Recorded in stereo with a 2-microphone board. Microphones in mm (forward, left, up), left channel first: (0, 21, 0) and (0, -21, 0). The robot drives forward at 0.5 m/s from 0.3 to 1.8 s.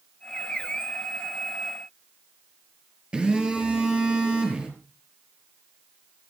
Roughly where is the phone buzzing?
Right.